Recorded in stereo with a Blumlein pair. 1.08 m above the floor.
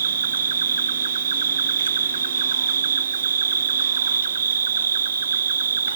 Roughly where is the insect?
Ahead right.